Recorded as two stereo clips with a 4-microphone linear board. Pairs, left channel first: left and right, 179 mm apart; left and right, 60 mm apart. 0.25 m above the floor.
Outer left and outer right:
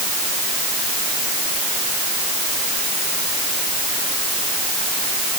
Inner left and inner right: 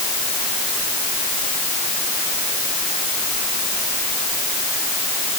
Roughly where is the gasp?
I don't hear a gasp.